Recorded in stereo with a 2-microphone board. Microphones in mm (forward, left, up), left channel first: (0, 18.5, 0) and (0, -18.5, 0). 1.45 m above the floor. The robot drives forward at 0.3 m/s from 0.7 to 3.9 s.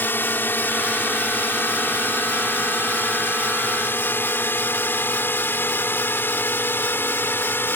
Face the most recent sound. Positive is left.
turn(degrees=80)